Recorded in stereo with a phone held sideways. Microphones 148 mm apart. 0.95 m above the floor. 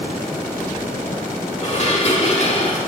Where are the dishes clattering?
50° left (ahead or behind), 1.5 m.